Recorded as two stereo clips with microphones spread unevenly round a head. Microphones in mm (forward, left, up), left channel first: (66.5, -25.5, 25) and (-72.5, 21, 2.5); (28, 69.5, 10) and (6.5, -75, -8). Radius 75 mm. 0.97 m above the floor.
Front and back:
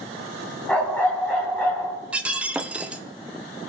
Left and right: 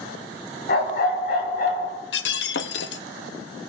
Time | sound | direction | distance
0.7 | a dog barking | 65° left | 3 m
2.1 | breaking glass | 80° left | 0.7 m